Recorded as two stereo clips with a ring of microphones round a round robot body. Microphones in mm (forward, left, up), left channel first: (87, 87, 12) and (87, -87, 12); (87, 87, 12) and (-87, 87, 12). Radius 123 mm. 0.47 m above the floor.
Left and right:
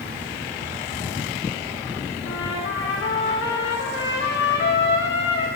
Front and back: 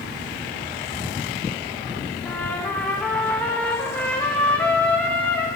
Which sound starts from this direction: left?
A trumpet, at 2.2 s.